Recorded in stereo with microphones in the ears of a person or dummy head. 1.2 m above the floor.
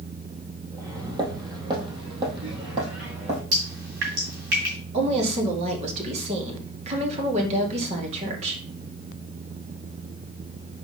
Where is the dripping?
55° right (ahead or behind), 2 m.